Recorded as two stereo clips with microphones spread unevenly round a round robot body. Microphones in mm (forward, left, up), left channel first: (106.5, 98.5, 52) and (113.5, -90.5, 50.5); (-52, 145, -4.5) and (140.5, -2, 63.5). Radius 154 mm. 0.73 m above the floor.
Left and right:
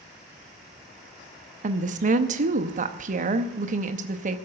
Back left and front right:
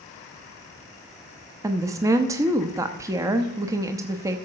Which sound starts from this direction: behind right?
A woman speaking, at 1.6 s.